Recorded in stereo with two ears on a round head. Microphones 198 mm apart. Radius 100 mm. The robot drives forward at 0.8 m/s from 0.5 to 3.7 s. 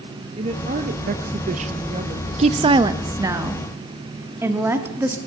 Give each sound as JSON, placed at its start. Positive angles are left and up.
{"t": 0.4, "sound": "a woman speaking", "side_deg": -25, "distance_m": 0.8}
{"t": 2.4, "sound": "a woman speaking", "side_deg": -30, "distance_m": 0.5}